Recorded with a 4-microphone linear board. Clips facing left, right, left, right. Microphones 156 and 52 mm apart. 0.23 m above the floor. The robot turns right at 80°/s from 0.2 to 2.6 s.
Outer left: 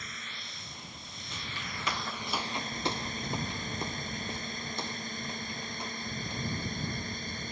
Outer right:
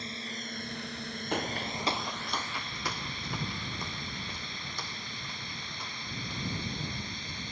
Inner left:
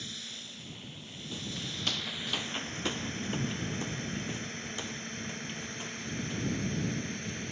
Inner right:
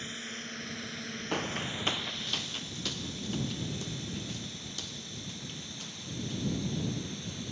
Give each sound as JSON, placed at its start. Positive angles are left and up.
{"t": 0.0, "sound": "a drone", "side_deg": -30}
{"t": 1.3, "sound": "footsteps", "side_deg": -65}